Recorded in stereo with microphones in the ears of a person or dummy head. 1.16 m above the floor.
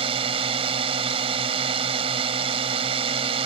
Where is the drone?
35° right (ahead or behind).